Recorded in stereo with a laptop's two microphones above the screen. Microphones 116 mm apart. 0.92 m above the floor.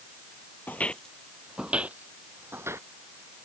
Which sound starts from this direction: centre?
Footsteps, at 0.7 s.